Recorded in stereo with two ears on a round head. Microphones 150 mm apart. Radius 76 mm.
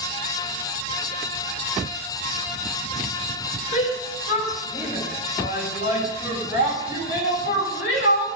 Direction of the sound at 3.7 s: 40° left (ahead or behind).